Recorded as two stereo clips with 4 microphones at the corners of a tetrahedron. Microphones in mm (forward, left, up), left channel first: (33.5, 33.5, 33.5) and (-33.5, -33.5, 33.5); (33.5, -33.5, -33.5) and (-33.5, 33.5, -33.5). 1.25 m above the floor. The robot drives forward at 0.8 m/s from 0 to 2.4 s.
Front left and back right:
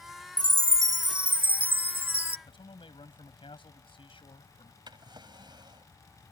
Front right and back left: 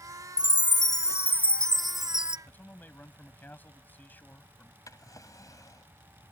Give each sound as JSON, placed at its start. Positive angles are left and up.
{"t": 0.4, "sound": "a chime", "azimuth_deg": -60}
{"t": 2.5, "sound": "a man speaking", "azimuth_deg": 25}
{"t": 4.9, "sound": "a drawer", "azimuth_deg": -100}